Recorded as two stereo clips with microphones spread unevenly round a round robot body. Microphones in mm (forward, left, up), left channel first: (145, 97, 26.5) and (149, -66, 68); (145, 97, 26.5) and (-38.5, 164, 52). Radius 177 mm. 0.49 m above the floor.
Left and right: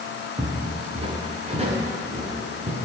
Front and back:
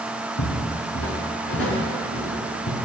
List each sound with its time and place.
0.4 s footsteps: 30° right, 4 m; by 2.8 s 45° right, 6.5 m